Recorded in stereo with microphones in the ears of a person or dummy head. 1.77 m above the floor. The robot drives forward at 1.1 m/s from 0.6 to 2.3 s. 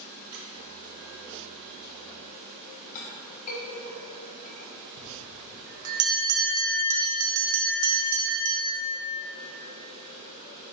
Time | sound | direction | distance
0.3 | a squeak | 50° right (ahead or behind) | 0.9 m
3.0 | a clink | 40° left (ahead or behind) | 1.2 m
5.0 | a bell | 80° right | 1.1 m